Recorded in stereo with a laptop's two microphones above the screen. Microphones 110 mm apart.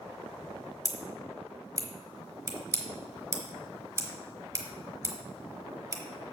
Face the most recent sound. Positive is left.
turn(degrees=-30)  # may be behind; listen again after turning